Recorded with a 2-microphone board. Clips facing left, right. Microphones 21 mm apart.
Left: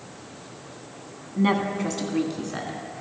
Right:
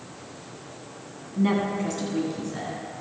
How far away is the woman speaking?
About 1.0 m.